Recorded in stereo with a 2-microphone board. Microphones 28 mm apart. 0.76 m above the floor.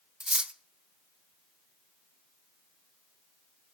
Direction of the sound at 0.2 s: 30° right (ahead or behind).